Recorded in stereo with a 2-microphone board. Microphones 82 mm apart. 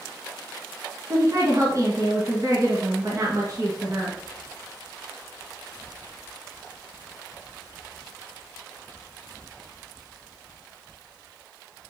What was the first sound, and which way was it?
A woman speaking, 40° right (ahead or behind).